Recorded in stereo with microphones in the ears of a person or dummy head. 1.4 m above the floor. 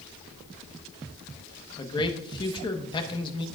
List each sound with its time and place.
1.8 s a man speaking: 20° left (ahead or behind), 1.2 m